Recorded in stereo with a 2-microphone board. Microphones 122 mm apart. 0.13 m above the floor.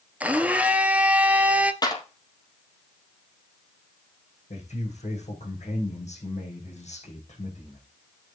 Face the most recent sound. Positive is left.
turn(degrees=70)  # may be behind; listen again after turning